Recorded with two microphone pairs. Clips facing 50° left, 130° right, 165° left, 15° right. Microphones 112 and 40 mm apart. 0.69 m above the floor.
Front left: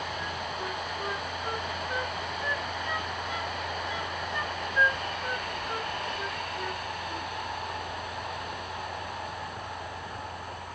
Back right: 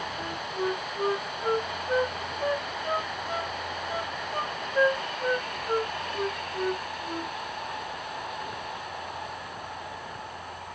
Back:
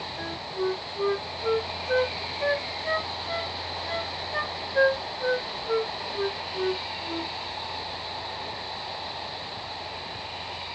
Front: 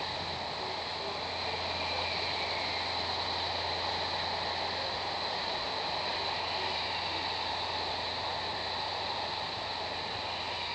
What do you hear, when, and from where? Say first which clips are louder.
0.2 s a flute: back right 3 dB, back 6 dB; straight behind